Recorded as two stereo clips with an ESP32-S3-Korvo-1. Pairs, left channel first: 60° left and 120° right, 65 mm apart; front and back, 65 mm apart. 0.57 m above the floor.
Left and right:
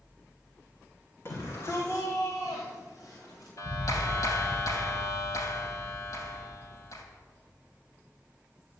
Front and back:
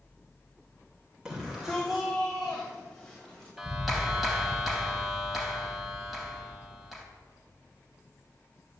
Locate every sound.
1.2 s a shout: 100° left, 2.5 m; by 3.5 s 80° left, 3.5 m
3.6 s a clap: 90° left, 3.5 m